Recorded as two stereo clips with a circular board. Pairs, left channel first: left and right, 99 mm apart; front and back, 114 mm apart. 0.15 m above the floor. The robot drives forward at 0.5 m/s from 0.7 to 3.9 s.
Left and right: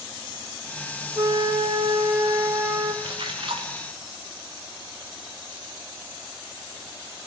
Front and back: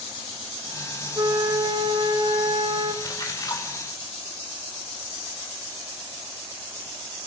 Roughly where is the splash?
Ahead right.